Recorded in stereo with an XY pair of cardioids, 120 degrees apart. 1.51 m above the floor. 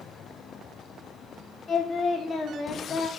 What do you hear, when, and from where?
1.7 s singing: 35° left, 1.5 m